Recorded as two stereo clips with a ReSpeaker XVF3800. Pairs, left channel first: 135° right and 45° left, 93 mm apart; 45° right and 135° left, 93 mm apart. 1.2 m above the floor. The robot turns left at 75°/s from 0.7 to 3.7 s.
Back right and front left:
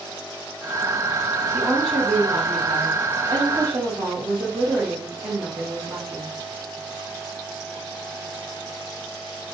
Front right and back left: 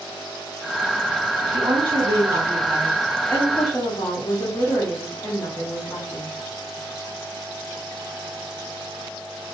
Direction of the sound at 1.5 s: 155° left.